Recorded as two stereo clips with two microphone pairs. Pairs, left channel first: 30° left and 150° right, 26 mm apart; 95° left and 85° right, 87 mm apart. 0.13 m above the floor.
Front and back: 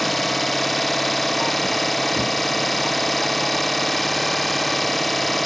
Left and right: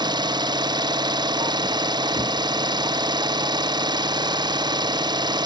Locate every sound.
0.0 s an engine running: 55° right